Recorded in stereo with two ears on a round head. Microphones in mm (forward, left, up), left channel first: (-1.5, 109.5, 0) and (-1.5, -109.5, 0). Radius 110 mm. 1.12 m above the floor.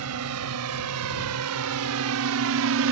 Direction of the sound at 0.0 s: 75° right (ahead or behind).